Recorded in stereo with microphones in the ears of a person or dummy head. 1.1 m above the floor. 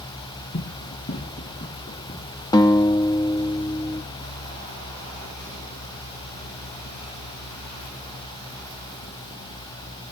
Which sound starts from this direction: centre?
A guitar, at 2.5 s.